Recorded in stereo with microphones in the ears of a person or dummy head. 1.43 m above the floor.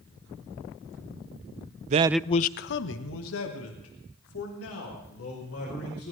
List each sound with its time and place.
1.9 s a man speaking: 45° right (ahead or behind), 0.6 m; by 6.1 s 85° left, 6 m